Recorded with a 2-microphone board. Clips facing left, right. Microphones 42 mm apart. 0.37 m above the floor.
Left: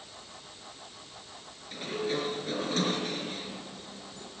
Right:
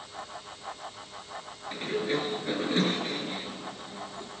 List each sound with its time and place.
1.7 s a sliding door: 20° right (ahead or behind), 5.5 m